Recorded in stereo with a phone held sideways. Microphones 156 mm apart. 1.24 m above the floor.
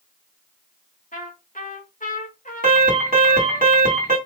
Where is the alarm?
70° right (ahead or behind), 3 m.